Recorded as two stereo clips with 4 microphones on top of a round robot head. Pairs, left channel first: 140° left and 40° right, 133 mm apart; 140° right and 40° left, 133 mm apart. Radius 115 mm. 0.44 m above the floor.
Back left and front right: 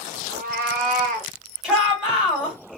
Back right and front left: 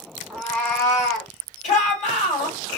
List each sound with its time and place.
0.3 s a cat meowing: 45° right, 0.8 m; by 1.3 s 75° right, 1.6 m
1.6 s a shout: 125° right, 2.5 m